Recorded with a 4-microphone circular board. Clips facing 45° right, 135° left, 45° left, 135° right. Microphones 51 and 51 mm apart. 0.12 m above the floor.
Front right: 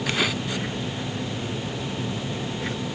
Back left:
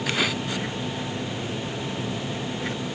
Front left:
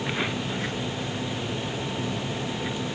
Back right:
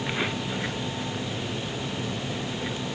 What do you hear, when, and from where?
Only background noise.